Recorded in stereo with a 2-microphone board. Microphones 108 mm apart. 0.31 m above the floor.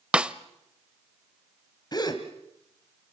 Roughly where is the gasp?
Left.